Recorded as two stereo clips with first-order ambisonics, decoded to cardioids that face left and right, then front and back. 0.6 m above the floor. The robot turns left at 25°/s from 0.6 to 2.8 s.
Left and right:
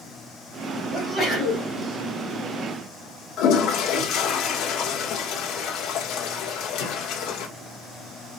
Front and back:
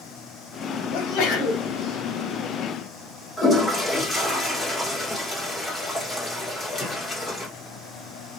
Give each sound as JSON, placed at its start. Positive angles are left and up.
{"t": 0.9, "sound": "a sneeze", "azimuth_deg": 5, "distance_m": 3.5}
{"t": 3.4, "sound": "a toilet flushing", "azimuth_deg": 75, "distance_m": 1.3}